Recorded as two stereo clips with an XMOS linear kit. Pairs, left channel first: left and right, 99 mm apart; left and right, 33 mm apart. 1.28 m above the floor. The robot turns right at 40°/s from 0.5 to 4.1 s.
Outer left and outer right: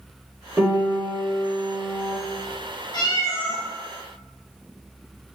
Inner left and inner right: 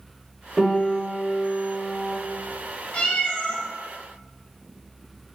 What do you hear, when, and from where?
0.6 s a piano: 145° right, 1.2 m; by 2.2 s 85° right, 1.2 m
2.9 s a cat meowing: 45° left (ahead or behind), 0.9 m; by 3.6 s 25° left (ahead or behind), 0.9 m